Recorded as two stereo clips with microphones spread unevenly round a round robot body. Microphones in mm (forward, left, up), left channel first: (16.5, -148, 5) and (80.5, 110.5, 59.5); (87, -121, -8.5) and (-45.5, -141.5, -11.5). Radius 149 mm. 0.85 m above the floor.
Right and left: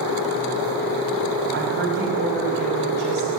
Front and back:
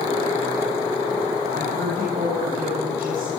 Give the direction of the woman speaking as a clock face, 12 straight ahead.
8 o'clock.